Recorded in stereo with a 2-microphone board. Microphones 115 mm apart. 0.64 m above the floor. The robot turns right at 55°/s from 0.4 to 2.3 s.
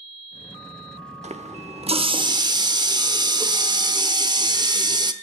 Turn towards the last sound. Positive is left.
turn(degrees=-40)